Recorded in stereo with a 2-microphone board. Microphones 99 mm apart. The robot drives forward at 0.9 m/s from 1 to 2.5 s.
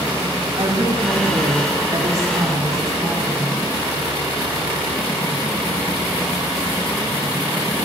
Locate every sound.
0.6 s a woman speaking: 40° right (ahead or behind), 1.4 m; by 3.6 s 30° right (ahead or behind), 1.7 m